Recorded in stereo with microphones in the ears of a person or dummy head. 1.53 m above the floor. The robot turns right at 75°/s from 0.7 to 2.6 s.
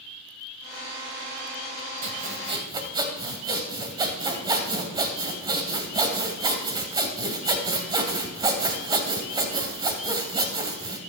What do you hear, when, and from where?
2.0 s sawing: 70° right, 2 m; by 11.0 s 30° right, 2 m